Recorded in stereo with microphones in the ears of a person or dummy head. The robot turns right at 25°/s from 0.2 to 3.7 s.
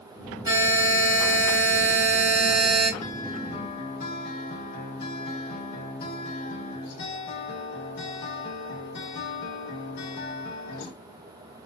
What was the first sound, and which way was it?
A buzzer, 155° right.